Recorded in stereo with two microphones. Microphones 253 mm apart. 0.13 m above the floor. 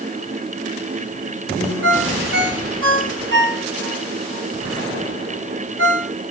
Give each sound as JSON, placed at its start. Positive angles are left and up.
{"t": 1.8, "sound": "a ringtone", "side_deg": -50, "distance_m": 5.5}